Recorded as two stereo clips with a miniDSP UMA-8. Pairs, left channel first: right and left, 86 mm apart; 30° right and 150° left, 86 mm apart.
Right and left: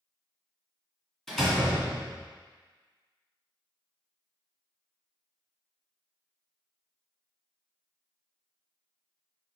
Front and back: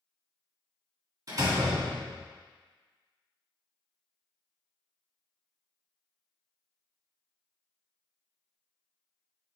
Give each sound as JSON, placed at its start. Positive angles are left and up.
{"t": 1.3, "sound": "a door slam", "azimuth_deg": -175, "distance_m": 2.0}